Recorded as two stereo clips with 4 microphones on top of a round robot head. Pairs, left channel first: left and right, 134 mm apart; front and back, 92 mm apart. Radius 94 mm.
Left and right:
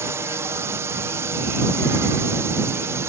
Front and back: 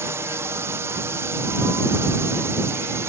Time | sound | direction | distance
0.0 | a drone | 145° right | ?